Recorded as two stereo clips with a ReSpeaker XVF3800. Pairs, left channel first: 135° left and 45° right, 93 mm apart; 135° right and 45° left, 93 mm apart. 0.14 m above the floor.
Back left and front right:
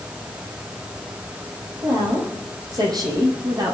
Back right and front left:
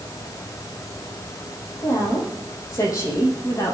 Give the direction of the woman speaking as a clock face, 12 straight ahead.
3 o'clock.